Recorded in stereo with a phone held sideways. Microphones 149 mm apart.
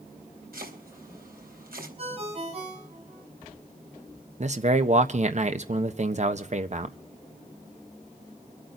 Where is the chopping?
85° right, 4 m.